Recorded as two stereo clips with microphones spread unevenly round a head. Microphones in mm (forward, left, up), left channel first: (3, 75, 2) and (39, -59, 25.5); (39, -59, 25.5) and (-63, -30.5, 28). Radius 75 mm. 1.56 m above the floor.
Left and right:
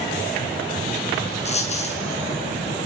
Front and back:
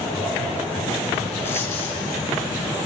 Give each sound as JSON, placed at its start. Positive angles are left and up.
{"t": 1.4, "sound": "a dropped coin", "azimuth_deg": 60, "distance_m": 4.5}